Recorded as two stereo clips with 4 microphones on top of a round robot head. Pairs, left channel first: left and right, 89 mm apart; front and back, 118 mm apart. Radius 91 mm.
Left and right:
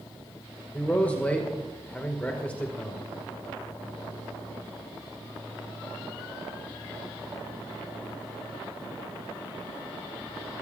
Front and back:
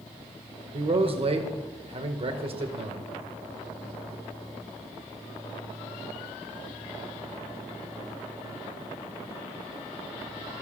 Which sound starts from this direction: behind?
A man speaking, at 0.7 s.